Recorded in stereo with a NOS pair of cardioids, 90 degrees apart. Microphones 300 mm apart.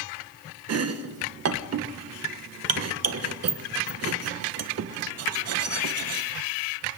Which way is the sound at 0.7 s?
60° right.